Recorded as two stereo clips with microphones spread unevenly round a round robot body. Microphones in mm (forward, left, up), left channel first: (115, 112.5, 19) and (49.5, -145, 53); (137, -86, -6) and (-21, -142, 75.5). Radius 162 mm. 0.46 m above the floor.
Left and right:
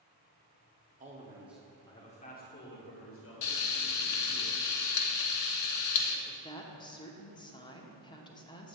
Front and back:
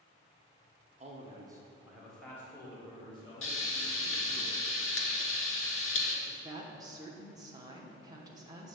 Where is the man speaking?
95° right, 1.1 m; by 4.4 s 60° left, 3 m.